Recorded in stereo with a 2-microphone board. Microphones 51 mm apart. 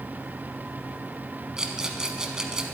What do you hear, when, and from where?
1.6 s a rattle: 15° right (ahead or behind), 1.0 m